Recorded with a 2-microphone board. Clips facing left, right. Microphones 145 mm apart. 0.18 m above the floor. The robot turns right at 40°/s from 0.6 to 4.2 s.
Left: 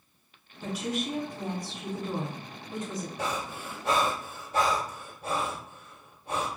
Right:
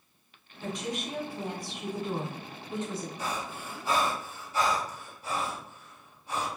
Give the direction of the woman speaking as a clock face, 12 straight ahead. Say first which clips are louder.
Left 3 dB; 7 o'clock.